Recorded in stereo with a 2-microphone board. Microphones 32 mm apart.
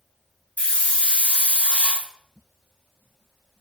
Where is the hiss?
55° left (ahead or behind), 2.5 m.